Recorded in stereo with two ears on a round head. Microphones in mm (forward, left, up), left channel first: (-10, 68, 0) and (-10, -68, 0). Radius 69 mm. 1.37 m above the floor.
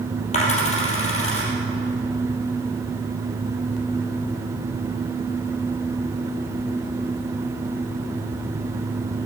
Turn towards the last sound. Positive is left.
turn(degrees=50)  # may be behind; listen again after turning